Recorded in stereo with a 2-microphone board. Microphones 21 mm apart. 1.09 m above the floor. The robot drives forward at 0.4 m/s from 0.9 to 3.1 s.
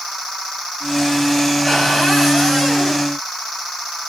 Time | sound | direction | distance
1.6 | a cupboard door | 10° right (ahead or behind) | 8 m